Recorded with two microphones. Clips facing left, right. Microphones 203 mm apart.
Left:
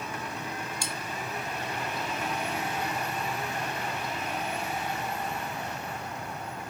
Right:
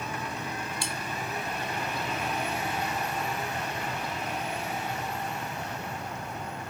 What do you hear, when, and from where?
0.8 s cutlery clinking: 45° left (ahead or behind), 1.8 m